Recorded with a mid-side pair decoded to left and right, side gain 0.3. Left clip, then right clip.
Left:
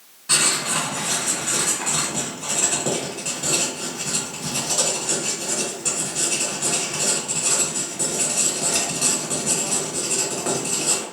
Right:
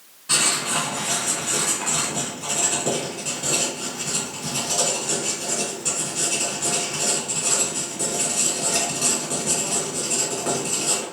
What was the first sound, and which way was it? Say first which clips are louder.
Writing: left 1 dB; 30° left.